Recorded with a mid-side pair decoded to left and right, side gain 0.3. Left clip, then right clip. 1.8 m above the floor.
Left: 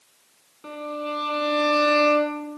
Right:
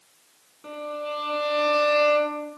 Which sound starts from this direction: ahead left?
A violin, at 0.6 s.